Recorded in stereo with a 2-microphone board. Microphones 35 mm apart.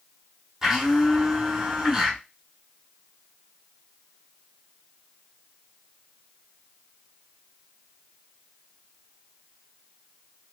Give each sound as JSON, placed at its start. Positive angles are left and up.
{"t": 0.6, "sound": "a blender", "side_deg": -10, "distance_m": 1.5}